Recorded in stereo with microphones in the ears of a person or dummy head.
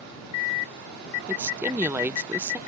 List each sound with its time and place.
1.3 s a woman speaking: 10° right (ahead or behind)